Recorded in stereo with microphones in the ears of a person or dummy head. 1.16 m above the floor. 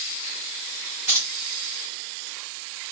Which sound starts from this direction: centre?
Keys jangling, at 1.1 s.